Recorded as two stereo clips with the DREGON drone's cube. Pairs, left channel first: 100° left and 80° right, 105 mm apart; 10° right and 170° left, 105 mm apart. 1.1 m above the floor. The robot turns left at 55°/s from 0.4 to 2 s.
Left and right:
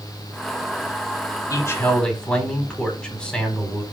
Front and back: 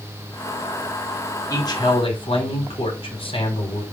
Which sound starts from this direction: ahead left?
A man speaking, at 1.5 s.